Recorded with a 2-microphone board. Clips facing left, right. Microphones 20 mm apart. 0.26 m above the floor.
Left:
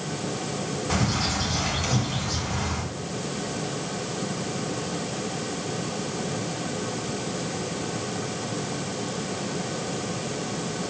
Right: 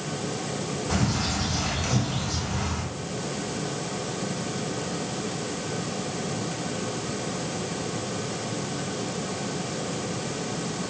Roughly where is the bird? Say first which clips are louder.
Left 1 dB; centre.